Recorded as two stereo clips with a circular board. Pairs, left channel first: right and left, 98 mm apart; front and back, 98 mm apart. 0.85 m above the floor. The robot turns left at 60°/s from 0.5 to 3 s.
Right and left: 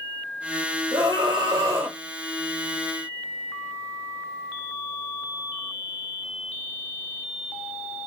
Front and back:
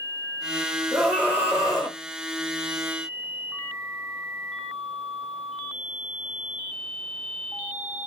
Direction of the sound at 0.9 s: 90° left.